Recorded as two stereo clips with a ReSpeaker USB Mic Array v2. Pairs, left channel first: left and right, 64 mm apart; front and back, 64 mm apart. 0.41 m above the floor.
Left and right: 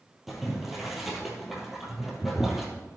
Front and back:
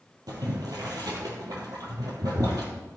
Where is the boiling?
Straight behind, 2.5 m.